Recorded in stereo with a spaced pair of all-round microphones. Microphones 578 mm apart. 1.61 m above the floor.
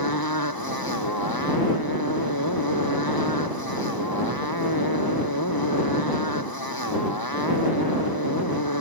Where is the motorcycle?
35° left (ahead or behind).